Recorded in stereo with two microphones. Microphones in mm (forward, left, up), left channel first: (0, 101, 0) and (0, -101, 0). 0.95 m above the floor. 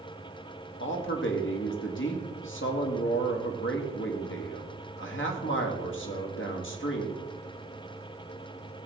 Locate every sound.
0.8 s a man speaking: 70° left (ahead or behind), 2 m